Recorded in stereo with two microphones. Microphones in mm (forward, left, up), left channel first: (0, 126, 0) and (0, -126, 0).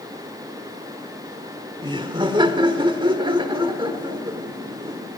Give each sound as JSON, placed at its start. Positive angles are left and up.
{"t": 1.8, "sound": "laughter", "side_deg": -20, "distance_m": 1.4}